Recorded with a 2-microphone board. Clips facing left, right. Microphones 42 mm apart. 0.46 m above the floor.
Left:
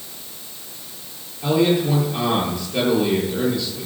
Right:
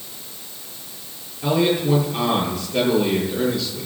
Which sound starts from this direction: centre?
A man speaking, at 1.4 s.